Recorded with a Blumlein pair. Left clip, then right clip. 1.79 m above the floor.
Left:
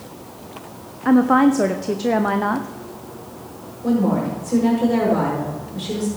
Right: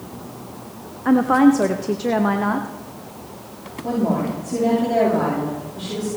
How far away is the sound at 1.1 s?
About 0.6 m.